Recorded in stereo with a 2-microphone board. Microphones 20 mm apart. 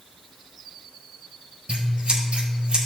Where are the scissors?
65° right (ahead or behind), 5 m.